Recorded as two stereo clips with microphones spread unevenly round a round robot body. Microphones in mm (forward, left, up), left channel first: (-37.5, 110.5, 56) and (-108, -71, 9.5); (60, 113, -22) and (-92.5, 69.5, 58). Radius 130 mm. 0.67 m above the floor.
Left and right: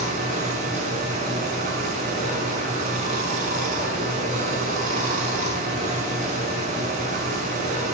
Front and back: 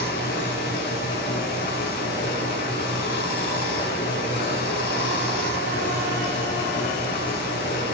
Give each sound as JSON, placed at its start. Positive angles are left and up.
{"t": 0.0, "sound": "running water", "azimuth_deg": -50, "distance_m": 6.0}